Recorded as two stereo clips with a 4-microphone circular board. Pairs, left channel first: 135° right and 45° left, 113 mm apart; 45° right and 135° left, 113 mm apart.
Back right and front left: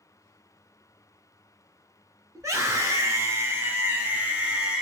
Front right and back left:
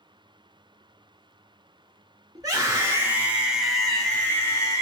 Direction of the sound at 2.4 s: 95° left.